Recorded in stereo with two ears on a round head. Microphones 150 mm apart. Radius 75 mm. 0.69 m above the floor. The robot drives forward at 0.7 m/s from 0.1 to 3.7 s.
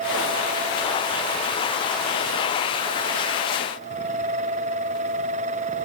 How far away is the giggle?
No giggle in this recording.